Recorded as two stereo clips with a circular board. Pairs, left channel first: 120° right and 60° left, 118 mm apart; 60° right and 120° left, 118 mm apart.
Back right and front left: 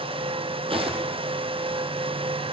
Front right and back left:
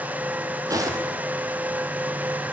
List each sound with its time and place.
0.7 s footsteps: 70° left, 2.5 m